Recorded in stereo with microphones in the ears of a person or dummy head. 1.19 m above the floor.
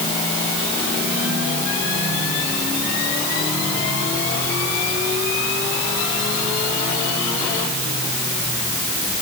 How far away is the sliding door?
I don't hear a sliding door.